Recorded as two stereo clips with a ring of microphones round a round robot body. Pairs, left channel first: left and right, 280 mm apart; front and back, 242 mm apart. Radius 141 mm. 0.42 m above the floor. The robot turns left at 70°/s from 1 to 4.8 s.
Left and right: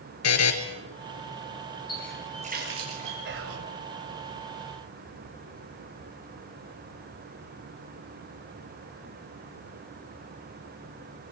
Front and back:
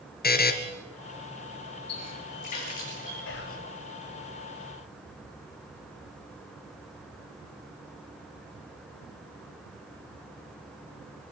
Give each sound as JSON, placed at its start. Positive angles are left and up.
{"t": 0.2, "sound": "a buzzer", "azimuth_deg": 50, "distance_m": 3.0}
{"t": 1.9, "sound": "a running tap", "azimuth_deg": 15, "distance_m": 6.5}
{"t": 3.2, "sound": "whispering", "azimuth_deg": -40, "distance_m": 1.9}